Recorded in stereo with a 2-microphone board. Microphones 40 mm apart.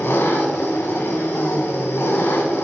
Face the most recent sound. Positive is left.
turn(degrees=70)  # may be behind; listen again after turning